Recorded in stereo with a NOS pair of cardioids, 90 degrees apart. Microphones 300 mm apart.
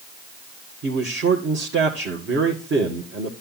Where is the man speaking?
45° right, 2 m.